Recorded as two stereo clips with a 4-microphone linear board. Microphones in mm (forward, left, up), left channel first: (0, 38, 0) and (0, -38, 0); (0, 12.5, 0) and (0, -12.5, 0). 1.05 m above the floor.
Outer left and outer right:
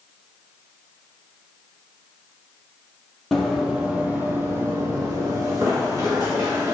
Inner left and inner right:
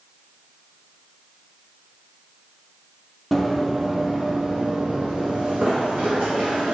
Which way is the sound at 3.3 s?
Centre (ahead or behind).